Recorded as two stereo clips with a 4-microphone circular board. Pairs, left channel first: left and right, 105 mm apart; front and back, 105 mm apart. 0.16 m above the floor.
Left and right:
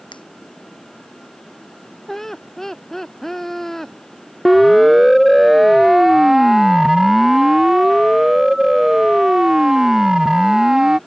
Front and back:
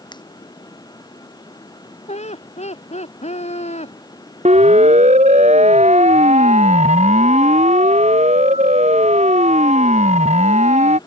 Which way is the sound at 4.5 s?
Straight behind.